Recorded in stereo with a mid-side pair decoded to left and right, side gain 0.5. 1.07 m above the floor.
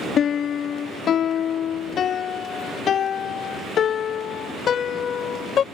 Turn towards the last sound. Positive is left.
turn(degrees=55)